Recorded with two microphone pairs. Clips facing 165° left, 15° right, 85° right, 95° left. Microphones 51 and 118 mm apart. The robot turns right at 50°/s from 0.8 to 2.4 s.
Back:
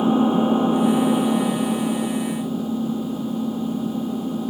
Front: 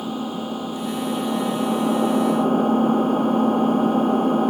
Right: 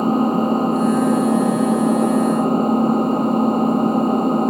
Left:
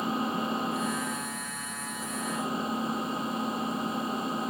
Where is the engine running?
130° right; by 4.5 s 50° right.